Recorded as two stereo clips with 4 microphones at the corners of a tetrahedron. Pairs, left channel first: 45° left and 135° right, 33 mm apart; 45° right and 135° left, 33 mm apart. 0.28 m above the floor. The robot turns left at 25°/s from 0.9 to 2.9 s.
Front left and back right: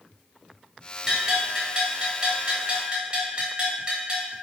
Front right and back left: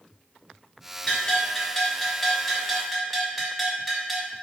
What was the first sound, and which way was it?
A bell, 80° right.